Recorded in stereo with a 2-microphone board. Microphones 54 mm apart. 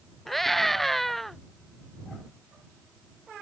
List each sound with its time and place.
0.3 s a scream: 5° left (ahead or behind)